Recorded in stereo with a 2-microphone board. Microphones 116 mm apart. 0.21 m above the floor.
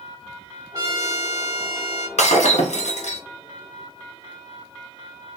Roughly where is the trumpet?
Right.